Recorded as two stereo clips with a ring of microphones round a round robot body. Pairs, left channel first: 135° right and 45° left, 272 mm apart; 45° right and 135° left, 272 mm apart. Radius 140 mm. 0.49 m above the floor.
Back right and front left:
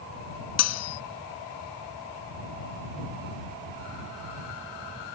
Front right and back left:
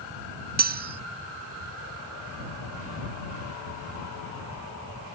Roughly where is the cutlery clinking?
Behind.